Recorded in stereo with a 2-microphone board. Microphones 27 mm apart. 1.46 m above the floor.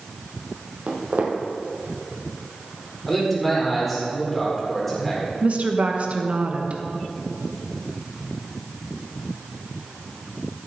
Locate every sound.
0.9 s footsteps: 55° right (ahead or behind), 2.5 m
3.1 s a man speaking: 10° left (ahead or behind), 4 m
5.4 s a woman speaking: 45° right (ahead or behind), 1.4 m